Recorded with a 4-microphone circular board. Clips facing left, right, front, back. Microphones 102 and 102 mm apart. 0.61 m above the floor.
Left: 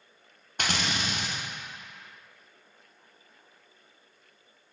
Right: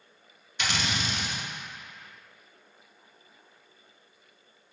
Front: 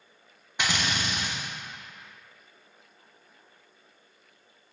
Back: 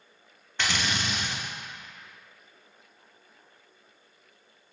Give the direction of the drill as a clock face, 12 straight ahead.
10 o'clock.